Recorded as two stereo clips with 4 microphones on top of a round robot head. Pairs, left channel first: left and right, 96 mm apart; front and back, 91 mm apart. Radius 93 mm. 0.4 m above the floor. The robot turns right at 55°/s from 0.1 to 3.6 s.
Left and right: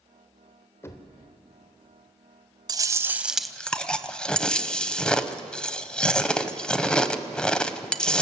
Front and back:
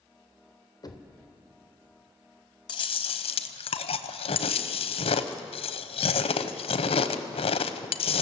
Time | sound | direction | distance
0.8 | knocking | 30° left | 1.7 m
2.7 | chewing | 40° right | 1.0 m